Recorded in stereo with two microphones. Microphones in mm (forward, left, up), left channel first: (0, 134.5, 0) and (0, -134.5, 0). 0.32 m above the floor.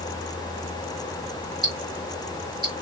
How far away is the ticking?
About 1.0 m.